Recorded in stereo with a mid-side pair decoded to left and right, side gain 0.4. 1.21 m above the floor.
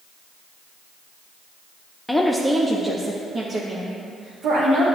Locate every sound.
2.1 s a woman speaking: 10° left, 0.7 m; by 4.8 s 75° right, 2 m